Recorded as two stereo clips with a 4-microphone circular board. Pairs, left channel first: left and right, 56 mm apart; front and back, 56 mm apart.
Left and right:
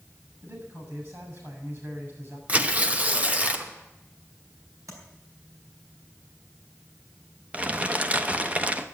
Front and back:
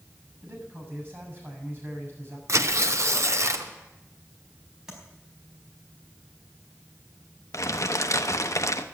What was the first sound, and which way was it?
A man speaking, 130° right.